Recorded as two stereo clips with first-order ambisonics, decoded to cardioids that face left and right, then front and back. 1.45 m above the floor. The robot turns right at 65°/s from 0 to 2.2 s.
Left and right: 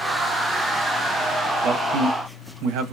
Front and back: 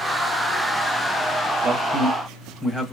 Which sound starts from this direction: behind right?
A man speaking, at 1.6 s.